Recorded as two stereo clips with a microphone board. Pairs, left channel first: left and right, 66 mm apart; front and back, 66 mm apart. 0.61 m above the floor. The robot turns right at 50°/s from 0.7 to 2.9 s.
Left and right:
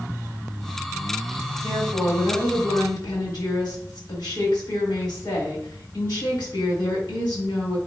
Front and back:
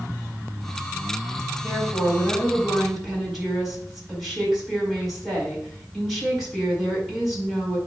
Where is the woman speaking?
30° left, 4.5 m; by 7.8 s 95° left, 4.5 m.